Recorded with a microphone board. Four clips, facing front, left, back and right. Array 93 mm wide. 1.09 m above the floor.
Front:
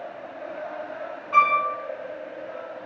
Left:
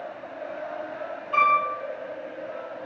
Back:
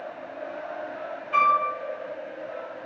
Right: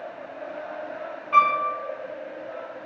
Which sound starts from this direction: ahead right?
A piano, at 1.3 s.